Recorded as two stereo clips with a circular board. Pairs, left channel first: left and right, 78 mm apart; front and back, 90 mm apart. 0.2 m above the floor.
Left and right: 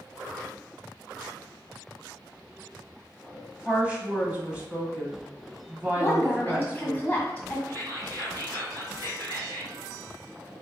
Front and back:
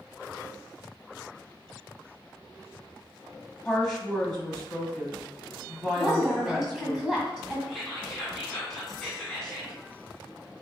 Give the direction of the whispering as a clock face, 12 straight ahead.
3 o'clock.